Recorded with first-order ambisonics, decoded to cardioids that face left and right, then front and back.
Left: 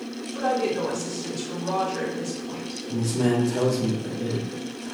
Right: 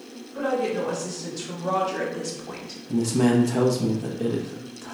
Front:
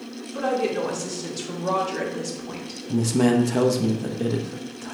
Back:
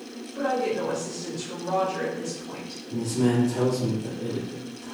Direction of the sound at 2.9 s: 20° right.